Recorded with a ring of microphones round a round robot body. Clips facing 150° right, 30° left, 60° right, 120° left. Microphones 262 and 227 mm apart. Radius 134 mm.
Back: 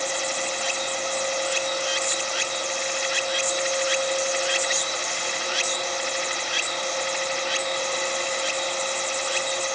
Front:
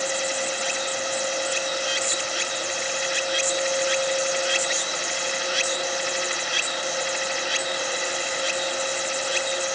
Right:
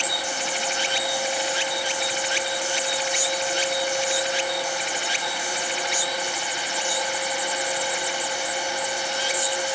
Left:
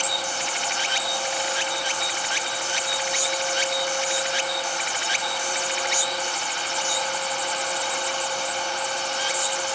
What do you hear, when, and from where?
Only background noise.